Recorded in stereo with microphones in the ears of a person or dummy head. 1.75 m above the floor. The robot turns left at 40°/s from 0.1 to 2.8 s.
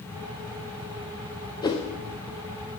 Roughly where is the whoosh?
Centre.